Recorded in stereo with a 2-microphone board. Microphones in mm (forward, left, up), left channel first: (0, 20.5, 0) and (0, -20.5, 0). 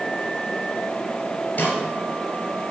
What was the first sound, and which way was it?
A snare drum, 40° left (ahead or behind).